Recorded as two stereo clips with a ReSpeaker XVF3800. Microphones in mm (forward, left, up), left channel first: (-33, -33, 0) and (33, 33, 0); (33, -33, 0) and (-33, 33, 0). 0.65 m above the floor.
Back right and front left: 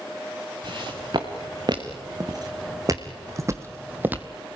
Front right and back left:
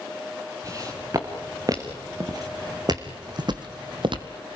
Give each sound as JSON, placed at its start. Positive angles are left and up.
{"t": 0.6, "sound": "footsteps", "azimuth_deg": 80, "distance_m": 4.0}